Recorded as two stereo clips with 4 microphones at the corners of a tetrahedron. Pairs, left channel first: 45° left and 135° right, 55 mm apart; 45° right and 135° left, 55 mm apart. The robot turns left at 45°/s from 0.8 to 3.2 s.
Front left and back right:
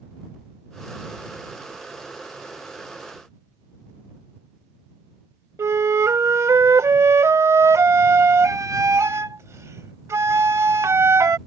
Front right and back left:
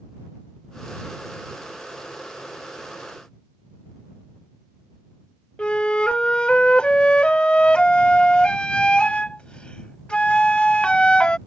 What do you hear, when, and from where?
5.6 s a flute: 115° right